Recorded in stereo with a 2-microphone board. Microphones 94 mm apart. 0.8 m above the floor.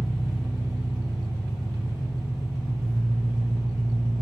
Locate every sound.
0.0 s an engine running: 10° right (ahead or behind), 1.3 m